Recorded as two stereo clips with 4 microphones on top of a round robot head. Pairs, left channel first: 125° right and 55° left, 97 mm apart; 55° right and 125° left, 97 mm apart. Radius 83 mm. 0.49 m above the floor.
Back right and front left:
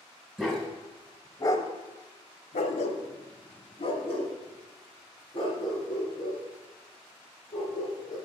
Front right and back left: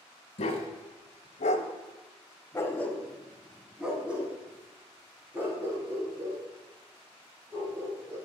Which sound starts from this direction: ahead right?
A dog barking, at 0.4 s.